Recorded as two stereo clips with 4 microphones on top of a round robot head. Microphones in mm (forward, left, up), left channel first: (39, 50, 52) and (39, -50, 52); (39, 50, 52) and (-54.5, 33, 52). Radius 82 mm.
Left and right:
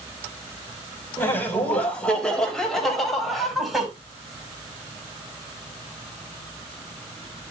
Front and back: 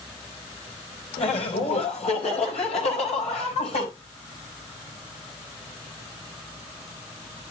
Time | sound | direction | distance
1.2 | laughter | 20° left | 3.5 m